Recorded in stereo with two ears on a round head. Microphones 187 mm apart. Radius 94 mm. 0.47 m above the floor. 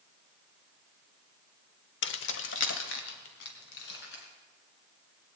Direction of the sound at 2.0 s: 55° left (ahead or behind).